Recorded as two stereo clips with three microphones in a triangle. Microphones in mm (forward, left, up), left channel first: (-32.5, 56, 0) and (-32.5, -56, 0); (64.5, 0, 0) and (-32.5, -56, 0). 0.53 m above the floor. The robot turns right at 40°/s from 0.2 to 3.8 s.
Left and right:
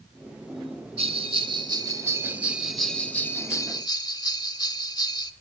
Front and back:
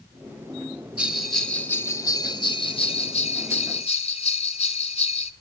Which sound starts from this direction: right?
A bell, at 1.0 s.